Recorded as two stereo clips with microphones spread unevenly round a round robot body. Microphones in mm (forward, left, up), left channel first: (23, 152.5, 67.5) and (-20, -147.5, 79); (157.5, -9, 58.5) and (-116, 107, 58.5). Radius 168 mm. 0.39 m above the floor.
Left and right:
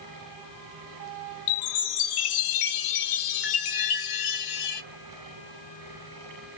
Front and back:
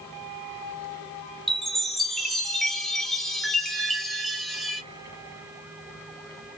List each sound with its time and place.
1.5 s a chime: 65° left, 0.5 m